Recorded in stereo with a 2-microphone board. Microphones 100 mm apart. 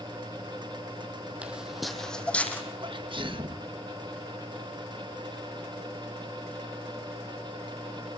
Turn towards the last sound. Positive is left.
turn(degrees=-55)  # may be behind; listen again after turning